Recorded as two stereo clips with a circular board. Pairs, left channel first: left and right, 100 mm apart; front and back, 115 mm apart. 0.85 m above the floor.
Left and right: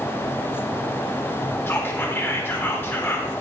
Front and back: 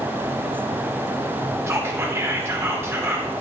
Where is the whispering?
130° left, 1.1 m.